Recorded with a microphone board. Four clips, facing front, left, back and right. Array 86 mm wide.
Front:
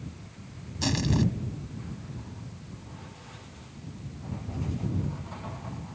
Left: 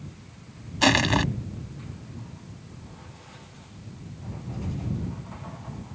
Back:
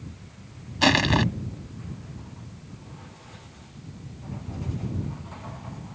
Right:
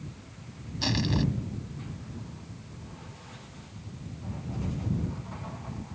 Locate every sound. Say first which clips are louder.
0.8 s crushing: left 8 dB, back 6 dB; 135° left